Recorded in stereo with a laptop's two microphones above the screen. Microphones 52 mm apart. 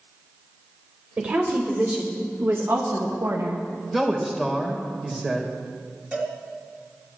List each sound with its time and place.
1.2 s a woman speaking: 25° right (ahead or behind), 3 m; by 3.6 s 85° right, 1.3 m
3.9 s a man speaking: centre (ahead or behind), 3.5 m
6.1 s a cowbell: 25° right (ahead or behind), 3 m